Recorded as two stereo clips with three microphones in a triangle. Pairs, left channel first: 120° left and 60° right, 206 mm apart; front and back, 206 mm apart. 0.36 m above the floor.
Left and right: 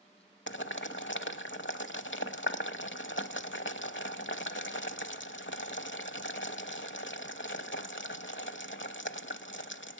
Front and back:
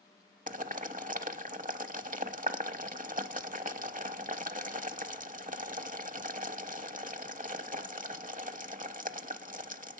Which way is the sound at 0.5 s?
135° left.